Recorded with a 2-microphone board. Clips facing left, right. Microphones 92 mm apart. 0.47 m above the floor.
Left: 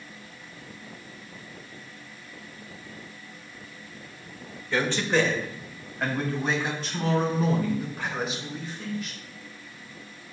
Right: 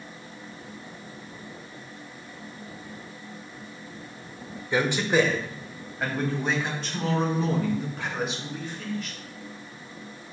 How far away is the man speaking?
About 1.1 m.